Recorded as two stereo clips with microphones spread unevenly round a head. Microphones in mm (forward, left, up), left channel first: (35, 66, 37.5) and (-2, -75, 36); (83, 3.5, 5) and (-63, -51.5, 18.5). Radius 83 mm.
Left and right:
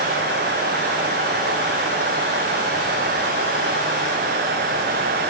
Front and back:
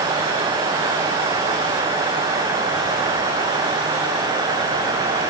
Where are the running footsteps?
I don't hear running footsteps.